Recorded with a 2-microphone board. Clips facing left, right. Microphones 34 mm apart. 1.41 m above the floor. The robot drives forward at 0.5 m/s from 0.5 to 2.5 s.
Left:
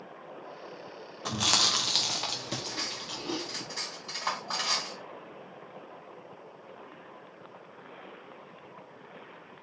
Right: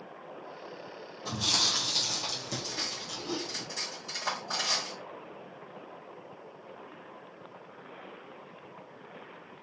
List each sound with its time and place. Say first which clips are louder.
1.2 s chewing: left 3 dB; 85° left, 0.5 m; by 3.6 s 40° left (ahead or behind), 0.8 m
2.6 s cutlery clinking: even; 20° left (ahead or behind), 2 m